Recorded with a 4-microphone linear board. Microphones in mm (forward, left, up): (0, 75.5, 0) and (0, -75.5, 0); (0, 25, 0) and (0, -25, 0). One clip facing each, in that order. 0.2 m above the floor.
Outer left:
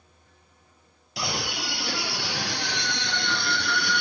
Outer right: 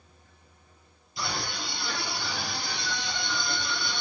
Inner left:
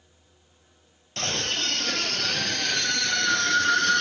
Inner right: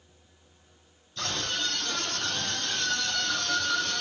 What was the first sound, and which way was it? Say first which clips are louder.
A scream: outer left 3 dB, inner left 3 dB; 70° left (ahead or behind).